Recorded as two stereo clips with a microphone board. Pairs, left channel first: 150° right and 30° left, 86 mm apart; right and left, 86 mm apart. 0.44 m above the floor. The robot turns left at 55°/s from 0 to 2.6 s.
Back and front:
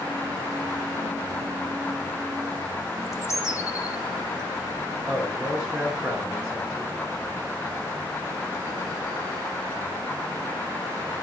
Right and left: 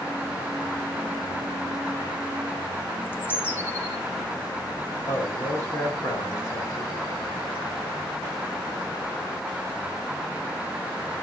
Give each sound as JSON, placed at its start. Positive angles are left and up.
{"t": 3.0, "sound": "a bird", "azimuth_deg": -135, "distance_m": 1.4}
{"t": 5.0, "sound": "a man speaking", "azimuth_deg": -55, "distance_m": 2.5}